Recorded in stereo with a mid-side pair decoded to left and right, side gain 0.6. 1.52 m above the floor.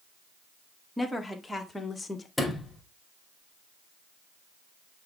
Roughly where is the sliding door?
Ahead.